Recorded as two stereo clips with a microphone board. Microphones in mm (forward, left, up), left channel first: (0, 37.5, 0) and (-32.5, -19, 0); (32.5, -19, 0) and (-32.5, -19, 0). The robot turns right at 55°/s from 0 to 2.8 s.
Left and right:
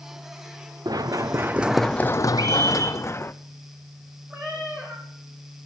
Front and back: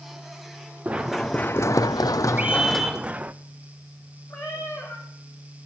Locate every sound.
0.8 s running footsteps: 110° right, 1.0 m; by 3.3 s 115° left, 0.8 m
2.4 s a scream: 115° right, 5 m; by 3.0 s 90° right, 5 m
4.3 s a cat meowing: 55° right, 4 m